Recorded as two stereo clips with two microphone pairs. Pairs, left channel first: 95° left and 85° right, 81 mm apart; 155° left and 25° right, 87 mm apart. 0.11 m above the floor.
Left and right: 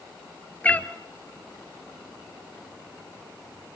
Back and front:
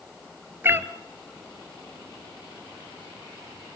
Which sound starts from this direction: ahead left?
A cat meowing, at 0.6 s.